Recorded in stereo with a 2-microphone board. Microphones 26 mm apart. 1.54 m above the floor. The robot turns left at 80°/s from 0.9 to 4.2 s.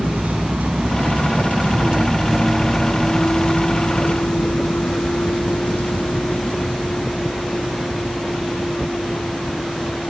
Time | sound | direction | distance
0.0 | a vehicle | 85° right | ?